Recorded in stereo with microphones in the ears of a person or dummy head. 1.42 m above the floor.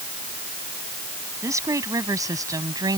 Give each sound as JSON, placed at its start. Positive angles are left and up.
{"t": 1.4, "sound": "a woman speaking", "side_deg": -15}